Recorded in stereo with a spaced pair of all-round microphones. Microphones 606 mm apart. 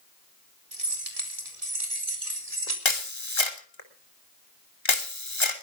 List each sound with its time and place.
0.7 s keys jangling: 70° right (ahead or behind), 4 m; by 2.8 s 85° right, 4.5 m
2.9 s a camera shutter: 50° left (ahead or behind), 2.5 m